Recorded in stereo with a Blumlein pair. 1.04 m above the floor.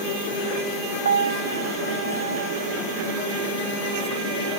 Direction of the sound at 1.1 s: 70° right.